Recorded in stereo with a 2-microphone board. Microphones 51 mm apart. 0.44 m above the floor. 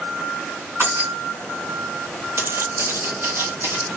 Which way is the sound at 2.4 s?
50° right (ahead or behind).